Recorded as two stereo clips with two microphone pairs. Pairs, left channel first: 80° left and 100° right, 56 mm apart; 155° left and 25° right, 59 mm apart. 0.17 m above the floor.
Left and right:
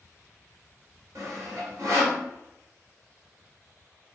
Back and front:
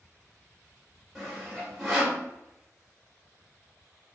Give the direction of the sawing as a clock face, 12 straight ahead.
4 o'clock.